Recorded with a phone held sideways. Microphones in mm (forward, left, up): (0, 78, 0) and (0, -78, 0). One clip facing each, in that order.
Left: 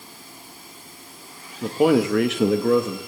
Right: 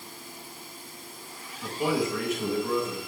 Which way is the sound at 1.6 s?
55° left (ahead or behind).